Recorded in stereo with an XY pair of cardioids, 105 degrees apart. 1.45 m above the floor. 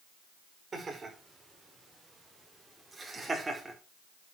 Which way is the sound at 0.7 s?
35° right.